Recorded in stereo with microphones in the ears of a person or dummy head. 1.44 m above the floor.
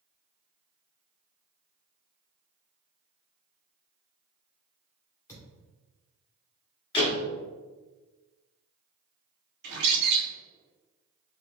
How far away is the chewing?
I don't hear chewing.